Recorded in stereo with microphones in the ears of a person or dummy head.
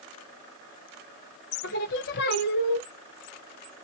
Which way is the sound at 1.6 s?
50° left (ahead or behind).